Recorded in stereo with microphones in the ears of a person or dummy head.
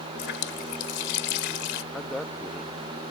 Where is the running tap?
70° left (ahead or behind).